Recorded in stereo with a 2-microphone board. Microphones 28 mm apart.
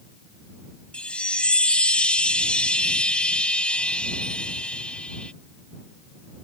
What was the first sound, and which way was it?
A chime, 45° left (ahead or behind).